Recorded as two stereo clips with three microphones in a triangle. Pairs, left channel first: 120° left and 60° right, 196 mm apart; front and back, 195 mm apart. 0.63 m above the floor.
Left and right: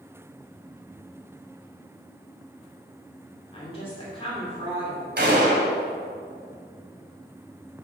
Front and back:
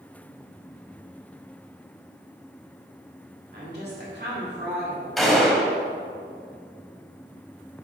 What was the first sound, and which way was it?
A woman speaking, 175° left.